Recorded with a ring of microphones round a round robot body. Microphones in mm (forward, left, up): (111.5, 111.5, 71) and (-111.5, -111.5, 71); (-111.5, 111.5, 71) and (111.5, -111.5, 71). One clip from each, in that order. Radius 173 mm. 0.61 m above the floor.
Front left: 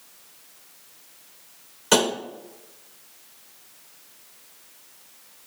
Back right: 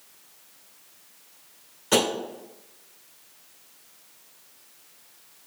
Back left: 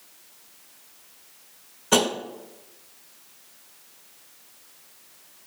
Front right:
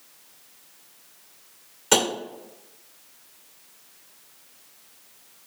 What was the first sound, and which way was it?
Tapping, 20° right.